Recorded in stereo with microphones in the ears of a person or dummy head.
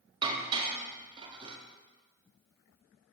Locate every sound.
0.2 s dishes clattering: 25° right (ahead or behind), 1.1 m